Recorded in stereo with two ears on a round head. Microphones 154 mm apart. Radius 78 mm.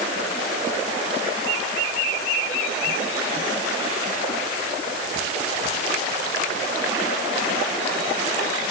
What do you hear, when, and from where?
Only background noise.